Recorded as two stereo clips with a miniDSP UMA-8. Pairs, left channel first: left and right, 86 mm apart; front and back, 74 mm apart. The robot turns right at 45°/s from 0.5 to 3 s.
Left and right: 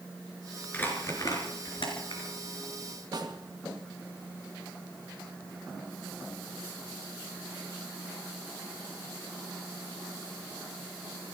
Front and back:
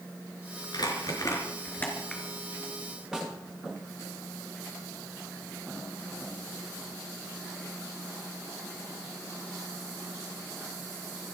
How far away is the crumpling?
About 4.5 m.